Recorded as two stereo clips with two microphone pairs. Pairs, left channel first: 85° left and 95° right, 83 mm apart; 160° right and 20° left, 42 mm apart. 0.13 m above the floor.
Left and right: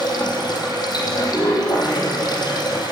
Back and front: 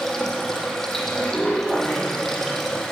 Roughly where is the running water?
Behind left.